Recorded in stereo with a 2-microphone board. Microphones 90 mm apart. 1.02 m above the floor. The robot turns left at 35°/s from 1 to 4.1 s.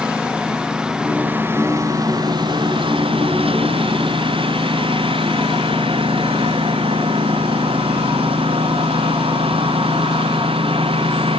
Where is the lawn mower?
10° right (ahead or behind); by 11.4 s 80° right.